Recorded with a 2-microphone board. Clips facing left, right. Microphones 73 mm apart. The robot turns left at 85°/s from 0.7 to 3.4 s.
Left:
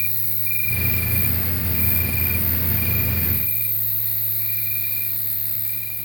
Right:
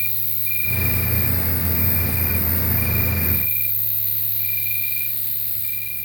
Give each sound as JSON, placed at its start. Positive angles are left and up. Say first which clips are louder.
{"t": 0.0, "sound": "an insect", "louder": "even", "azimuth_deg": -15, "distance_m": 1.0}